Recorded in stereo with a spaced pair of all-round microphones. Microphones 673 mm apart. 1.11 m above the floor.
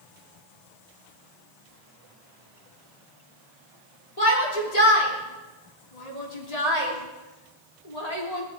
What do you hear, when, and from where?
4.2 s a shout: 60° left (ahead or behind), 3.5 m